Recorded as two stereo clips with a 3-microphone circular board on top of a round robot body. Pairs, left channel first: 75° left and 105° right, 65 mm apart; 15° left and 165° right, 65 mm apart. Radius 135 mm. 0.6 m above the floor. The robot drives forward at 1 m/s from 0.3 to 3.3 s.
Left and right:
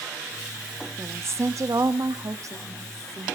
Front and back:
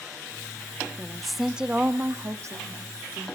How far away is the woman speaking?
About 1.4 m.